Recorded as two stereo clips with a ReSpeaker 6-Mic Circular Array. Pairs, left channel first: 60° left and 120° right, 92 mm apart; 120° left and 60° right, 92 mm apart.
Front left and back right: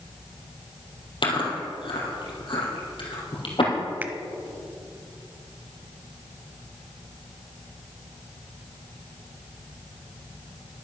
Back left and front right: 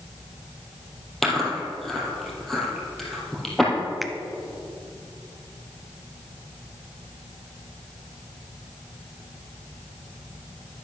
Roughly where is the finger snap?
Behind right.